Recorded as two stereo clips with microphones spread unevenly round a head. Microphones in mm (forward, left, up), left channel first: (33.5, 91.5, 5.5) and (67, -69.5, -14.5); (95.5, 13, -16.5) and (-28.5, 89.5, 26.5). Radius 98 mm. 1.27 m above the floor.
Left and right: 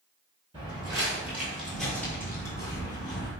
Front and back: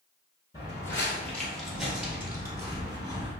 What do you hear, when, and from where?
0.5 s footsteps: 100° right, 1.3 m; by 3.3 s 140° left, 1.7 m